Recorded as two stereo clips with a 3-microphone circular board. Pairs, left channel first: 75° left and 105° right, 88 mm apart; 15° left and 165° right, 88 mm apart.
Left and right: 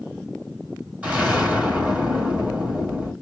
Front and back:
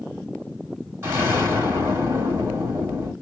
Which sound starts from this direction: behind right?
An explosion, at 1.0 s.